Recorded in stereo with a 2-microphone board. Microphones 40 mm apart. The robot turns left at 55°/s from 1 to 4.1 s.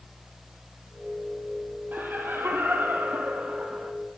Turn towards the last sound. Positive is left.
turn(degrees=-175)